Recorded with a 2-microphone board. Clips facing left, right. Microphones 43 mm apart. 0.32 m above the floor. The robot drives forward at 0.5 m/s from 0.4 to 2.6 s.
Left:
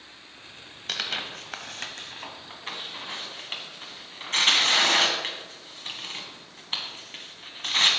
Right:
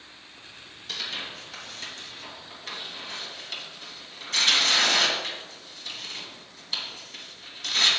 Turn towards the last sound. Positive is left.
turn(degrees=35)  # may be behind; listen again after turning